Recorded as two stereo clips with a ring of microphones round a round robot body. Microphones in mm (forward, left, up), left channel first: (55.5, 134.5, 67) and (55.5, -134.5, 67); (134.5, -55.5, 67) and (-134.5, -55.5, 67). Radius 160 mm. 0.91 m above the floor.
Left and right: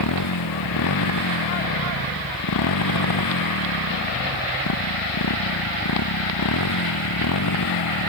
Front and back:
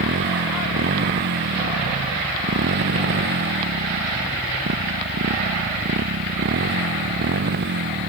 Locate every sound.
0.0 s a motorcycle: 125° left